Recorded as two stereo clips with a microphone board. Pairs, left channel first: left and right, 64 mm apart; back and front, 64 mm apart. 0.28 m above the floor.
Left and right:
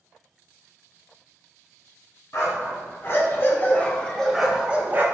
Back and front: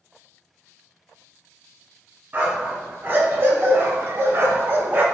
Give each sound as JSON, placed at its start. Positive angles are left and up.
{"t": 2.3, "sound": "a dog barking", "azimuth_deg": 60, "distance_m": 1.3}